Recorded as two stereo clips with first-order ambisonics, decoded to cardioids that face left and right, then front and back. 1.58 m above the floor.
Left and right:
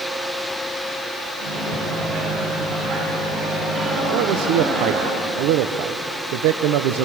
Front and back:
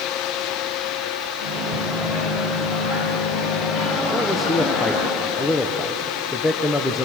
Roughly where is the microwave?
Ahead right.